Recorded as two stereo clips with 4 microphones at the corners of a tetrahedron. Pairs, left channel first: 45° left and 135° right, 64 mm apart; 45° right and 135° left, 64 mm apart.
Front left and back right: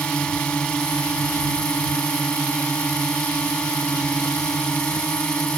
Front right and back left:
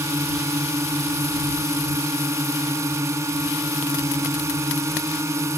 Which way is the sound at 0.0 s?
115° left.